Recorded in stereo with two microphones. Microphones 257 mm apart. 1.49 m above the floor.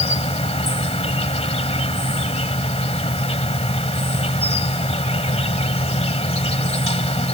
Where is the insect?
25° left (ahead or behind).